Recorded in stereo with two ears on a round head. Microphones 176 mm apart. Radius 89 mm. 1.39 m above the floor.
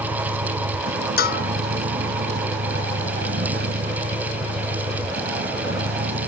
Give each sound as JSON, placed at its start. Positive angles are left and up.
{"t": 0.0, "sound": "a vehicle", "side_deg": -55}
{"t": 1.2, "sound": "a bell", "side_deg": 55}